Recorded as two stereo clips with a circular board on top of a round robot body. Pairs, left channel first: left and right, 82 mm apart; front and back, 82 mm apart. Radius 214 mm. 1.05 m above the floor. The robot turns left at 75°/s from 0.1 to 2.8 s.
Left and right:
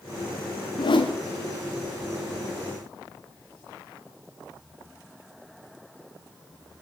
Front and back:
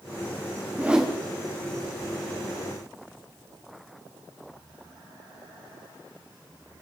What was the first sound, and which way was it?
A whoosh, 110° left.